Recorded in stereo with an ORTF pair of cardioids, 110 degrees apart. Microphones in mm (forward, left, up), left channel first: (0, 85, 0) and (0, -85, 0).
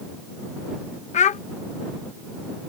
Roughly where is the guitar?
No guitar in this recording.